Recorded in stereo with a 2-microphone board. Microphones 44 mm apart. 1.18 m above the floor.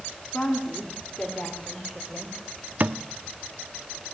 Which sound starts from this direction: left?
A woman speaking, at 0.3 s.